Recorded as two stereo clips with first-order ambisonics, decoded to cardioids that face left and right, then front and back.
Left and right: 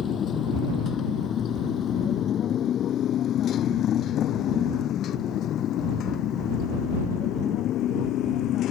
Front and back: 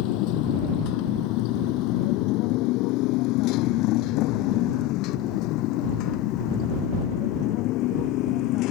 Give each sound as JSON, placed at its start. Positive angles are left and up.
{"t": 0.0, "sound": "a motorcycle", "azimuth_deg": 25}